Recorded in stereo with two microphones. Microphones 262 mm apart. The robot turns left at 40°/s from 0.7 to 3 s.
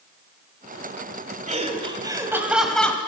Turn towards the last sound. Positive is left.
turn(degrees=170)